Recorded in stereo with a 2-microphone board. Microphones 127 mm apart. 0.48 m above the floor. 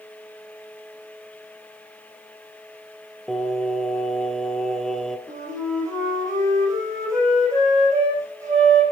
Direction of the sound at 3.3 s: Centre (ahead or behind).